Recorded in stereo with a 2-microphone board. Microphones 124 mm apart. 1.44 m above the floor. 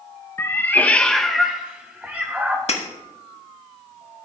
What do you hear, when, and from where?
0.4 s a cat meowing: 20° left (ahead or behind), 0.7 m; by 2.6 s 15° right (ahead or behind), 1.1 m
2.7 s breaking glass: 60° left (ahead or behind), 1.4 m